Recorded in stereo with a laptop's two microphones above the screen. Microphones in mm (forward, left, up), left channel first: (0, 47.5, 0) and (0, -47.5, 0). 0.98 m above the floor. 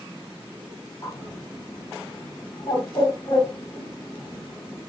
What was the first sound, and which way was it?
A bird, 40° left (ahead or behind).